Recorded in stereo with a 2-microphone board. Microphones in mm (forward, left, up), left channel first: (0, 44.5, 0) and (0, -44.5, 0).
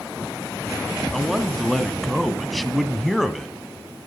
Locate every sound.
1.1 s a man speaking: centre (ahead or behind), 1.2 m